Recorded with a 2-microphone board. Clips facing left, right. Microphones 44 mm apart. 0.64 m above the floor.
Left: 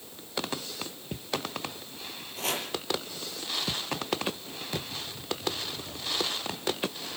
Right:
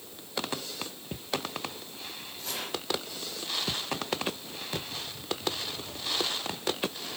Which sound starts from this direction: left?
Chopping, at 2.4 s.